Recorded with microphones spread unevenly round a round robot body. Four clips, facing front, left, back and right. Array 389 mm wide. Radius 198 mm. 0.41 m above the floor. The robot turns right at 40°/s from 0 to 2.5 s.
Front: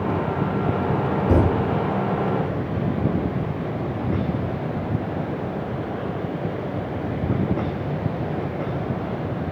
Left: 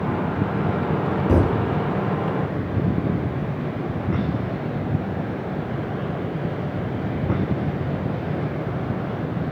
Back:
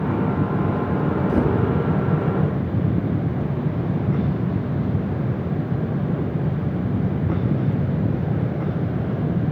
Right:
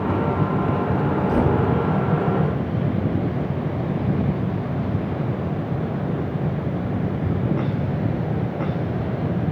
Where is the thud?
45° left, 7 m; by 1.7 s 60° left, 7 m.